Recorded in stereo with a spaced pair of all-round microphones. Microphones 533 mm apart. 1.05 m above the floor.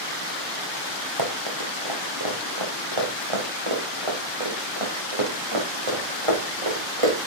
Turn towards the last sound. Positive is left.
turn(degrees=-75)  # may be behind; listen again after turning